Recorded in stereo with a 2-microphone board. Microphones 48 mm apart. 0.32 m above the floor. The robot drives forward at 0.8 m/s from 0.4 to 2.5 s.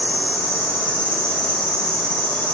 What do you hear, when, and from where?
0.0 s an insect: 45° left (ahead or behind), 1.7 m; by 2.5 s 20° left (ahead or behind), 3 m